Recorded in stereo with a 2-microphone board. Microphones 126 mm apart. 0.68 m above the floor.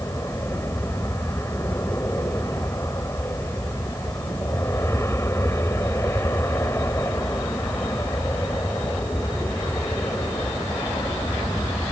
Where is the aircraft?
20° left (ahead or behind).